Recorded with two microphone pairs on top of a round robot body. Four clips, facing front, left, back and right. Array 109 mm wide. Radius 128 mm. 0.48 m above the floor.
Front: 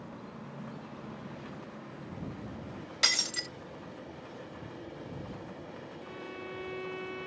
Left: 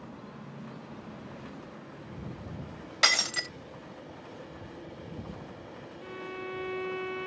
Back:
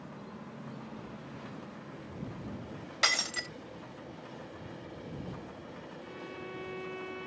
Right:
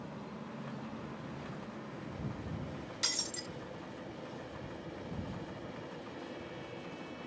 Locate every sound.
3.0 s breaking glass: 115° left
6.0 s a violin: 90° left